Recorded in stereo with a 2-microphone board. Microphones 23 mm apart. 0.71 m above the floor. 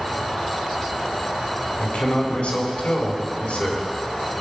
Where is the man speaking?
70° left (ahead or behind), 3.5 m.